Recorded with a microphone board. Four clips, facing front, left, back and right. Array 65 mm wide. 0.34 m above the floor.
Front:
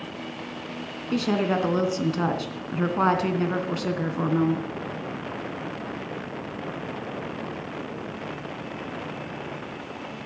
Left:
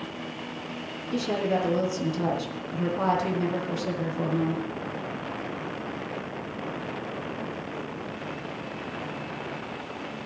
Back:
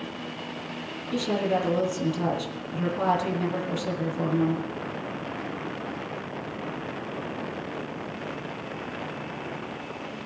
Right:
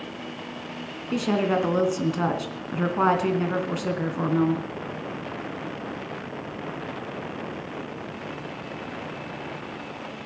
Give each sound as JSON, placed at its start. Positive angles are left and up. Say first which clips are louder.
{"t": 1.1, "sound": "a woman speaking", "louder": "right 3 dB, front 2 dB", "azimuth_deg": -45, "distance_m": 3.0}